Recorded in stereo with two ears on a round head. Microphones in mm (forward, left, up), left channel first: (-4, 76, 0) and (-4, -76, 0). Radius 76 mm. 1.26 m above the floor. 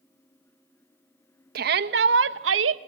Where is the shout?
60° right (ahead or behind), 1.2 m; by 2.8 s 85° right, 1.1 m.